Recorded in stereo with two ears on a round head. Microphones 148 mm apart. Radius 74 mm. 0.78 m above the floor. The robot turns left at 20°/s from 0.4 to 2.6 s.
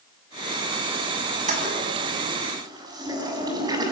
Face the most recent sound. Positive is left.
turn(degrees=-25)  # may be behind; listen again after turning